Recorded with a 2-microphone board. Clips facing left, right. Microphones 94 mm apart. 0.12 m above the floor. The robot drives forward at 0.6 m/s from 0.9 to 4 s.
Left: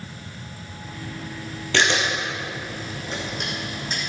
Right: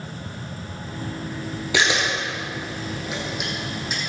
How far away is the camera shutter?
About 2.5 m.